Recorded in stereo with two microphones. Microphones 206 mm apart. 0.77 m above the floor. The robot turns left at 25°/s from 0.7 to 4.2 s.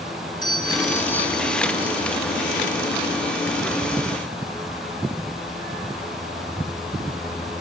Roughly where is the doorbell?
Ahead.